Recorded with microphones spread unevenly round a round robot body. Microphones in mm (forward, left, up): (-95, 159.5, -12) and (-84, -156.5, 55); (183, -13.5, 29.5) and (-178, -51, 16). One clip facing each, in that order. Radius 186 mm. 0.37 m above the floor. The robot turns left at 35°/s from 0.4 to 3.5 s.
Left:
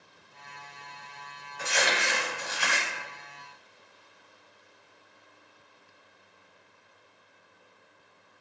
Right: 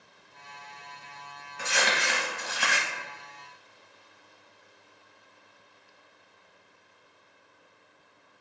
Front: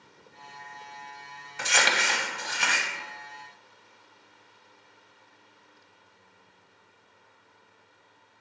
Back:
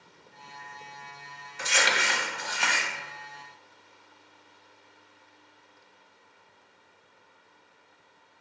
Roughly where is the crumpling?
Ahead.